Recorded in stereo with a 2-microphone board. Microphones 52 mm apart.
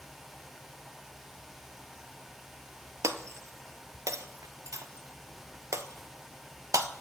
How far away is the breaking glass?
About 0.6 m.